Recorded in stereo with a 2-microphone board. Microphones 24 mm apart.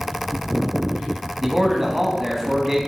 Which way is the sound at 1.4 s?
10° right (ahead or behind).